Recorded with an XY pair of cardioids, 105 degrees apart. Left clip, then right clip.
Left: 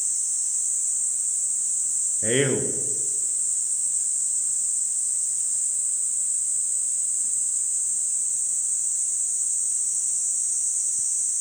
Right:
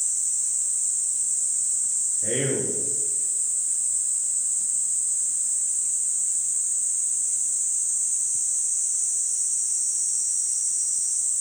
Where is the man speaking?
50° left, 0.6 m.